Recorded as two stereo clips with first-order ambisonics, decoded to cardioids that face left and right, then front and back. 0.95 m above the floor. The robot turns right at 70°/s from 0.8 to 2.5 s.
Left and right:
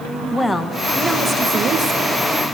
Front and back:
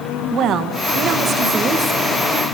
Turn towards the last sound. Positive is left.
turn(degrees=-70)